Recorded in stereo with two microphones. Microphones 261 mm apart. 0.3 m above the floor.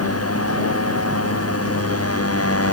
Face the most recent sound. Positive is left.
turn(degrees=65)  # may be behind; listen again after turning